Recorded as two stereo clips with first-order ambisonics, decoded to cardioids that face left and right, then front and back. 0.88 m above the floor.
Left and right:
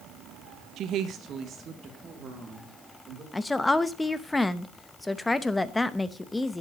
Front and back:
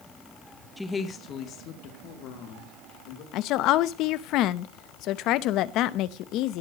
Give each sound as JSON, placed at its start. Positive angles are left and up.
{"t": 0.8, "sound": "a woman speaking", "azimuth_deg": -90, "distance_m": 1.0}
{"t": 3.3, "sound": "a woman speaking", "azimuth_deg": 5, "distance_m": 0.7}